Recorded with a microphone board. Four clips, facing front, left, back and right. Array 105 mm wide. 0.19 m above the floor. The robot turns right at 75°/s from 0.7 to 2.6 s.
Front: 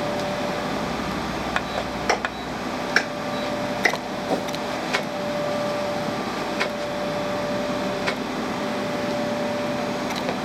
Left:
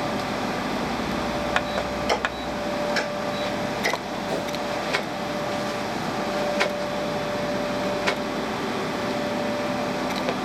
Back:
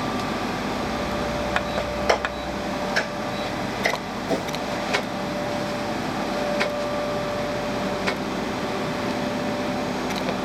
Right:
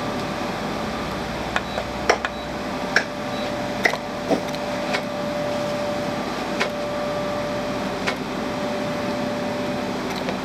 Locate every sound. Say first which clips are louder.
2.1 s a clap: right 3 dB, back 2 dB; 90° right, 2 m; by 4.0 s 55° right, 2 m
4.3 s a whoosh: right 7 dB, even; 100° right, 0.9 m